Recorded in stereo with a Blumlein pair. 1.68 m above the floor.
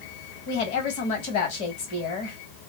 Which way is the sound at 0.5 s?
45° left.